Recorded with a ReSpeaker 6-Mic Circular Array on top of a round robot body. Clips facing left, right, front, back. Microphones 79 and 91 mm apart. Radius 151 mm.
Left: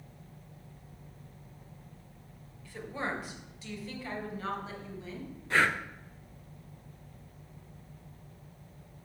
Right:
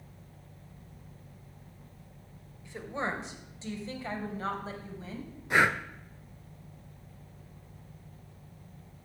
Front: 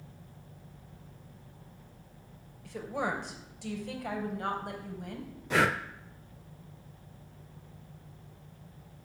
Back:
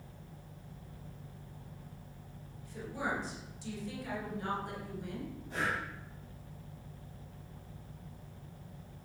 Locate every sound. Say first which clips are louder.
2.6 s a woman speaking: right 2 dB, front 4 dB; 20° right, 3 m; by 5.3 s 40° right, 4.5 m
5.5 s breathing: right 2 dB, front 9 dB; 15° right, 0.5 m